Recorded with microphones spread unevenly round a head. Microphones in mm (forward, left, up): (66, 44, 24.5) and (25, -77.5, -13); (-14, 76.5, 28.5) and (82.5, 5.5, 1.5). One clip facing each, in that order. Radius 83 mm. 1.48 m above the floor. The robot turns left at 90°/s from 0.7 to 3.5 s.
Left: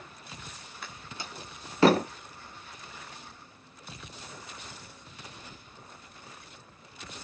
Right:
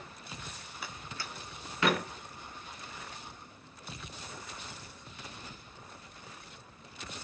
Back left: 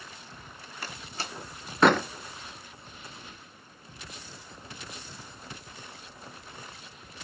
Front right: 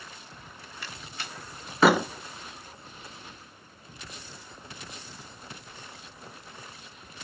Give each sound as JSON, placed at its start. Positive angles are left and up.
{"t": 0.8, "sound": "a door slam", "azimuth_deg": 155, "distance_m": 0.7}